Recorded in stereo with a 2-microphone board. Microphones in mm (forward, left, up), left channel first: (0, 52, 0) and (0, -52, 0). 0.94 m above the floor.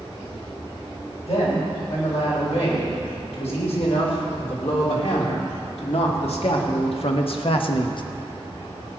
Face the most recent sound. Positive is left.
turn(degrees=50)  # may be behind; listen again after turning